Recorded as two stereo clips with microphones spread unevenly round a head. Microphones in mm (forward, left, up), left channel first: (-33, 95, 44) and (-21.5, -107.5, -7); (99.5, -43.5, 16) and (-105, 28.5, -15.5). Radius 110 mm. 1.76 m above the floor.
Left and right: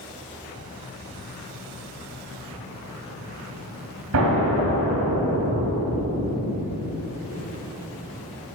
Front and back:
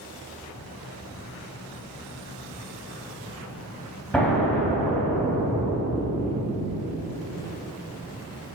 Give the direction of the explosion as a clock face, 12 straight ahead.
3 o'clock.